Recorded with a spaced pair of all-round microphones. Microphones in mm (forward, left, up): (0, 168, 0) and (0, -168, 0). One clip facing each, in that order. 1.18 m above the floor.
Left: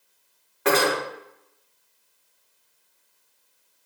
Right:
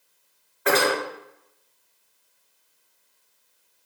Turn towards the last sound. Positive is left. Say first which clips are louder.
# left 1 dB
turn(degrees=70)  # may be behind; listen again after turning